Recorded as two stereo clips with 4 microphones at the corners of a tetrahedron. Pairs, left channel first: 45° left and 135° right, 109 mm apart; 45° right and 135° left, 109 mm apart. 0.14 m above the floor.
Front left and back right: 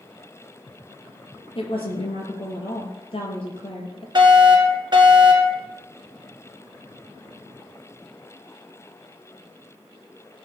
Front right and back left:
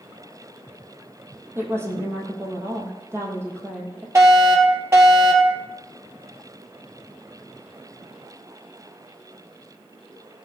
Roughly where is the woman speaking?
Left.